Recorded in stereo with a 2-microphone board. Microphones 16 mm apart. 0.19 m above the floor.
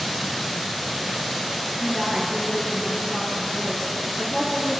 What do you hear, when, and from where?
1.8 s a woman speaking: 40° right (ahead or behind), 4 m